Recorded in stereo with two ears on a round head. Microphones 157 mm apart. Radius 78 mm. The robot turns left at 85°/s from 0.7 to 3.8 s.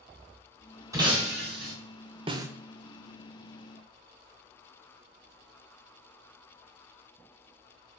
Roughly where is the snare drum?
Right.